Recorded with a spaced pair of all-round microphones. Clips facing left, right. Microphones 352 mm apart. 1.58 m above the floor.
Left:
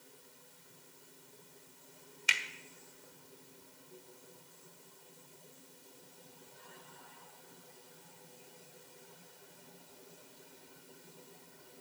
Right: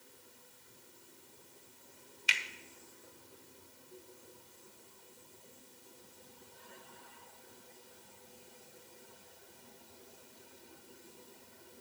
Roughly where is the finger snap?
Left.